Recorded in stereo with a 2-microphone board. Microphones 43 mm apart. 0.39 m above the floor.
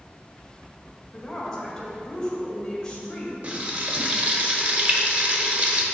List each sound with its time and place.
1.1 s a woman speaking: 15° left (ahead or behind), 1.5 m
3.4 s frying: 35° right (ahead or behind), 0.8 m